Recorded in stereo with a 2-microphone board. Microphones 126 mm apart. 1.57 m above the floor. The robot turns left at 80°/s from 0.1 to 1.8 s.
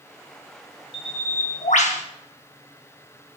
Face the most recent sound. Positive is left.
turn(degrees=70)